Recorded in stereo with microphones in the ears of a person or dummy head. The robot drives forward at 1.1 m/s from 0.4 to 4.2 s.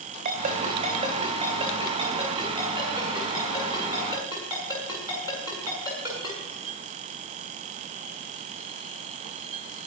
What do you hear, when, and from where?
0.2 s a ringtone: 45° right (ahead or behind), 2.5 m; by 6.4 s 15° right (ahead or behind), 6.5 m